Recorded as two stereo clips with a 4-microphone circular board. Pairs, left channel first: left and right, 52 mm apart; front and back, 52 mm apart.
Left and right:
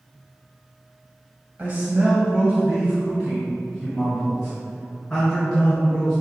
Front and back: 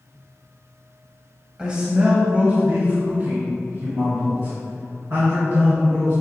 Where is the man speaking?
120° right, 1.8 m; by 6.2 s 175° left, 4.5 m.